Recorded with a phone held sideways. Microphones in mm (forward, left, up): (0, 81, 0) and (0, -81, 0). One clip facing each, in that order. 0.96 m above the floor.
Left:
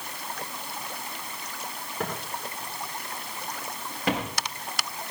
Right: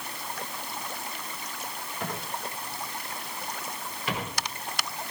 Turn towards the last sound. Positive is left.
turn(degrees=80)